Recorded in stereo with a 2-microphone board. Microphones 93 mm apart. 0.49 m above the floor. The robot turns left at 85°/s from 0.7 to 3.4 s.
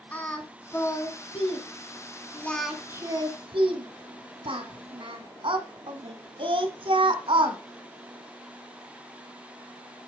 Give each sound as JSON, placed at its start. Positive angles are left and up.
{"t": 0.1, "sound": "singing", "side_deg": 15, "distance_m": 1.8}